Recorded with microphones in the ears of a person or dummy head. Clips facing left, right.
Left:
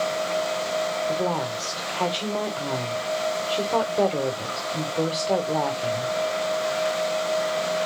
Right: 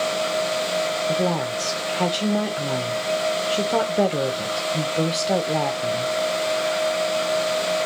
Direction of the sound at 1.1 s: 10° right (ahead or behind).